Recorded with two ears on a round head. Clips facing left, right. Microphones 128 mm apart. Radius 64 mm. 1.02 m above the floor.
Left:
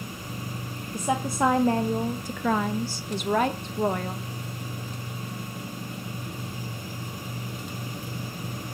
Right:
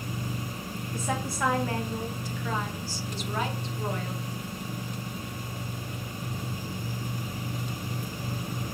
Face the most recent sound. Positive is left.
turn(degrees=40)  # may be behind; listen again after turning